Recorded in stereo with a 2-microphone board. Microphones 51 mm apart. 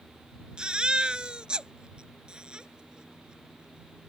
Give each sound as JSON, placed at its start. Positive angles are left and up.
{"t": 0.6, "sound": "a baby crying", "side_deg": -20}